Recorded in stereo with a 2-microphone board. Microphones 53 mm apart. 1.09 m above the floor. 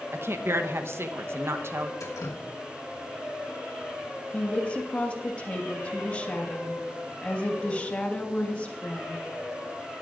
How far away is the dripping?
About 1.2 m.